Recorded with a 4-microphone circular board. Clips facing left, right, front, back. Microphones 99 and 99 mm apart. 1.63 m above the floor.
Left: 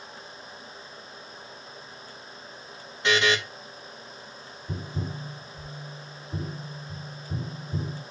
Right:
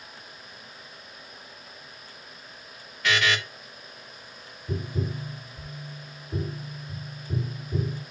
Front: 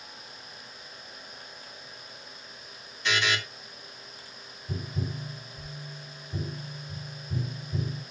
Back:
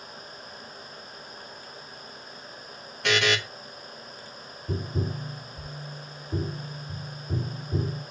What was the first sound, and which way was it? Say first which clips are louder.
A buzzer: left 2 dB, back 4 dB; 155° left.